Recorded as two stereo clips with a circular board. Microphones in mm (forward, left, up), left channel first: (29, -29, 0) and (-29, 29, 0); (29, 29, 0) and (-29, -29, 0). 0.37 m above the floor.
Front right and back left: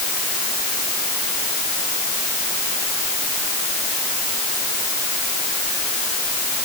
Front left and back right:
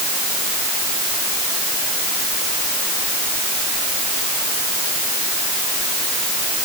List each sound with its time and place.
Only background noise.